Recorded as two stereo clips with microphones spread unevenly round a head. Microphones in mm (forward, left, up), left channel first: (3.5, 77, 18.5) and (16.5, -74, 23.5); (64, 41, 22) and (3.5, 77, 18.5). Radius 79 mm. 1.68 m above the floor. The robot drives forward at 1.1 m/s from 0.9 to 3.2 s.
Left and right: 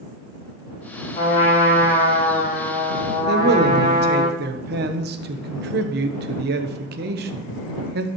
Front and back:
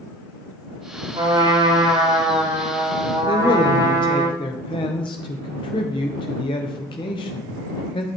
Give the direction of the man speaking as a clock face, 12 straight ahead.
2 o'clock.